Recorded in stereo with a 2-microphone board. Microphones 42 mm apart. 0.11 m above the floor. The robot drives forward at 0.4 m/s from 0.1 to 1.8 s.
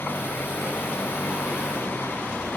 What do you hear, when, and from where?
0.0 s an engine running: 65° left (ahead or behind); by 2.6 s 70° left (ahead or behind)